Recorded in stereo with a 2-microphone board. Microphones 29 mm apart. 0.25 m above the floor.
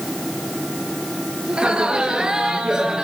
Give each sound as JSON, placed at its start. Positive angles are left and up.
{"t": 1.5, "sound": "laughter", "side_deg": -30, "distance_m": 5.5}